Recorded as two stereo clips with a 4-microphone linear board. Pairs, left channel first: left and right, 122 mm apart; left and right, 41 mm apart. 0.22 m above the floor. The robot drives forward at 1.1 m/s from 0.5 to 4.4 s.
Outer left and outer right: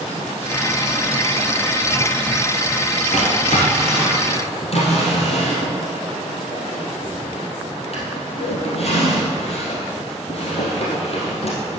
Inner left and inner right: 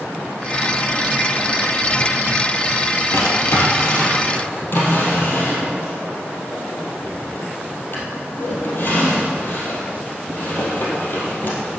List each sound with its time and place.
3.1 s a drawer: 80° left, 2.5 m; by 11.8 s 55° left (ahead or behind), 3 m